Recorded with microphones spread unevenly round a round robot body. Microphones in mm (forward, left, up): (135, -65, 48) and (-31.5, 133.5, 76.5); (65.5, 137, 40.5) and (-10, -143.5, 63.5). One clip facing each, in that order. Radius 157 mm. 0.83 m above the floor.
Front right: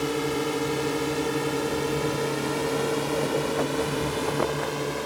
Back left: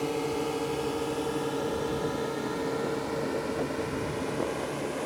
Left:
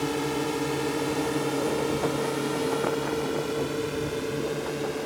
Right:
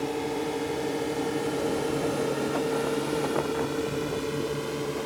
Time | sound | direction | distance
0.0 | a drone | 15° left | ?